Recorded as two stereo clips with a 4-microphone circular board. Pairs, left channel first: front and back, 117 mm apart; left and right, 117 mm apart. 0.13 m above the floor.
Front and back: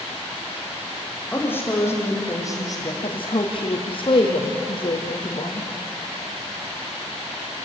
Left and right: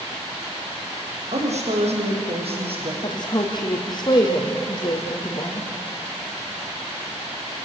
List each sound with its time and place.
1.3 s a woman speaking: 75° right, 6.5 m; by 2.9 s 55° right, 5.5 m
3.0 s a woman speaking: 40° left, 4 m